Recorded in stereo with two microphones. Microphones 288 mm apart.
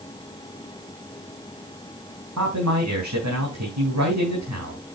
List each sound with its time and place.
2.4 s a man speaking: 85° right, 4 m